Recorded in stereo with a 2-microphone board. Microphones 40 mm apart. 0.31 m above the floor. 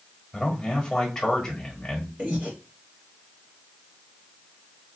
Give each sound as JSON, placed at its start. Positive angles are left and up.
{"t": 0.3, "sound": "a man speaking", "side_deg": 10, "distance_m": 1.4}
{"t": 2.2, "sound": "breathing", "side_deg": -25, "distance_m": 3.0}